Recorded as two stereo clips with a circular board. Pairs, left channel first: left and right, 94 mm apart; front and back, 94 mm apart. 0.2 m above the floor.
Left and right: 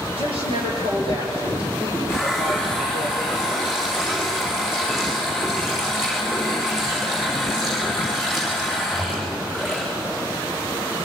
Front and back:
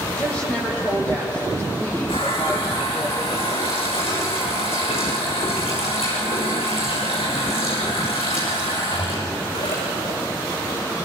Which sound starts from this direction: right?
A woman speaking, at 0.1 s.